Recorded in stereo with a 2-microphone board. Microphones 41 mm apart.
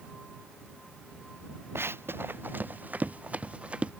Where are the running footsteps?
80° right; by 3.9 s 25° right (ahead or behind).